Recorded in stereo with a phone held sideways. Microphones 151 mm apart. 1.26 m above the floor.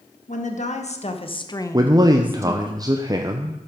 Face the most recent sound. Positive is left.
turn(degrees=-25)  # may be behind; listen again after turning